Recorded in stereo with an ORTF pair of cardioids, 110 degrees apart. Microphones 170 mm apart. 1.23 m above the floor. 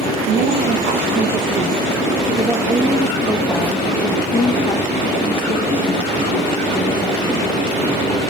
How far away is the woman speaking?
About 1.5 m.